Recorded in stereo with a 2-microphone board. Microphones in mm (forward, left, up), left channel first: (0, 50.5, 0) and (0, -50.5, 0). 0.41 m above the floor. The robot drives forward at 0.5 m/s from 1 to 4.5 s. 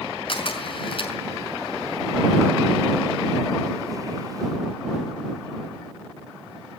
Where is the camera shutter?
55° left (ahead or behind), 5 m.